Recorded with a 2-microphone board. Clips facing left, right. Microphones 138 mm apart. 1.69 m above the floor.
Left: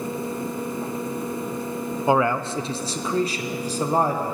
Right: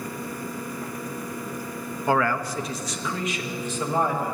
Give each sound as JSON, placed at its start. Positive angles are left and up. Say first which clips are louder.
{"t": 2.1, "sound": "a man speaking", "louder": "left 3 dB", "side_deg": 20, "distance_m": 0.6}